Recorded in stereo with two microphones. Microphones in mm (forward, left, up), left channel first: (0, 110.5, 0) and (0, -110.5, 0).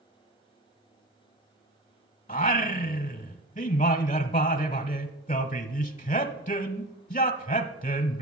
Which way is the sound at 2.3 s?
35° left (ahead or behind).